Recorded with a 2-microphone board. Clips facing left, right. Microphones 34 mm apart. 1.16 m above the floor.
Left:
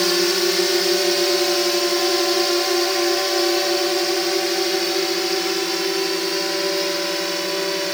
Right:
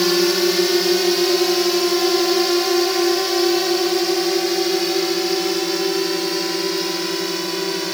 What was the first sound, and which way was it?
A drone, 5° right (ahead or behind).